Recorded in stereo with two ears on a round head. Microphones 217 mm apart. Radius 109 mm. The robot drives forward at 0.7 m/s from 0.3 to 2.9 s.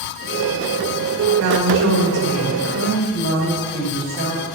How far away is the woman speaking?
About 2.5 m.